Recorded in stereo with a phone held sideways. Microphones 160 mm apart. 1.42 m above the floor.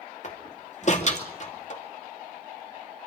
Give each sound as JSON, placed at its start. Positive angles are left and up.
{"t": 0.2, "sound": "a door slam", "side_deg": 50, "distance_m": 2.5}